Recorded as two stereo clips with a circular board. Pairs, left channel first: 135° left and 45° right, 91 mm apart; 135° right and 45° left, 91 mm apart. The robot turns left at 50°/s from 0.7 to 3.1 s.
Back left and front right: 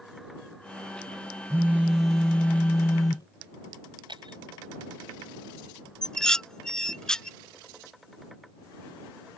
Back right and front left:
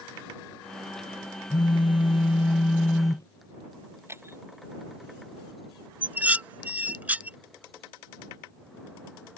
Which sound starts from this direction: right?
A phone buzzing, at 1.5 s.